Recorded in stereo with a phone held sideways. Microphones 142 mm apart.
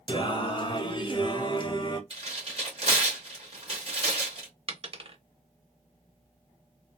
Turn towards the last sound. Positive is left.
turn(degrees=-40)  # may be behind; listen again after turning